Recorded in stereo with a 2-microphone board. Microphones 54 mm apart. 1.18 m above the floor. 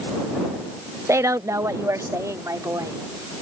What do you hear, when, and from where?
1.1 s a woman speaking: 60° right (ahead or behind); by 3.0 s 80° right